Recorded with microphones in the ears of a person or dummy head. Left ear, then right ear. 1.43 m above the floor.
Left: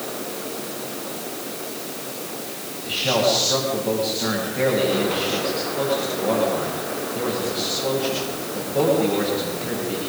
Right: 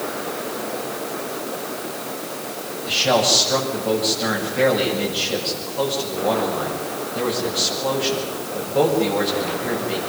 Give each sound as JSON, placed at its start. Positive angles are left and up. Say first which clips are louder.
{"t": 2.9, "sound": "a man speaking", "louder": "right 3 dB", "side_deg": -30, "distance_m": 9.5}